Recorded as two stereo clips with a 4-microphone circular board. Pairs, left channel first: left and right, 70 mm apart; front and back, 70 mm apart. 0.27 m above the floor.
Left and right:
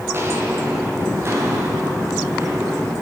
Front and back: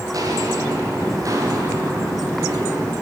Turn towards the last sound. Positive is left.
turn(degrees=-140)